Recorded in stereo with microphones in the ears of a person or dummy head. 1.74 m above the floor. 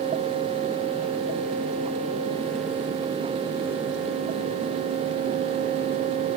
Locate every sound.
Only background noise.